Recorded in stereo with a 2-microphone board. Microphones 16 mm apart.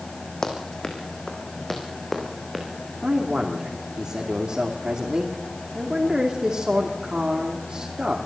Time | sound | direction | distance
0.4 | running footsteps | 40° left (ahead or behind) | 3.5 m
3.0 | a man speaking | 55° right (ahead or behind) | 2.5 m